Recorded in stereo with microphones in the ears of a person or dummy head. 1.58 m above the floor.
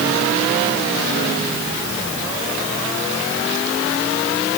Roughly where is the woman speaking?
No woman speaking in this recording.